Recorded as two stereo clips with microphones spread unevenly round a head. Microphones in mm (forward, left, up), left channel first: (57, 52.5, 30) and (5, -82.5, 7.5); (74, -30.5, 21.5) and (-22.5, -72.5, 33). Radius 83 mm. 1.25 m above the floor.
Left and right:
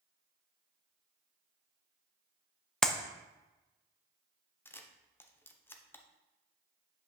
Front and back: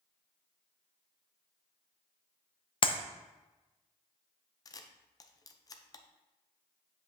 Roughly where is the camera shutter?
Ahead.